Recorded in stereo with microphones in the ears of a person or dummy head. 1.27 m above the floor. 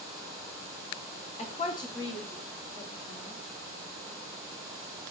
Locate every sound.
1.4 s a woman speaking: 35° left (ahead or behind), 0.6 m; by 3.4 s 5° left (ahead or behind), 1.7 m